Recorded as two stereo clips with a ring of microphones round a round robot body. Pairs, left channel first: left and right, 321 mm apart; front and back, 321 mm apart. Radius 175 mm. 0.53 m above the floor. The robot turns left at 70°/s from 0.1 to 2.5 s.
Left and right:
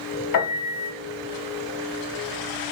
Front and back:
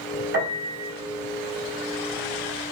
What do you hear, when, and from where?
0.3 s a piano: 120° left, 1.0 m; by 0.9 s 80° left, 1.0 m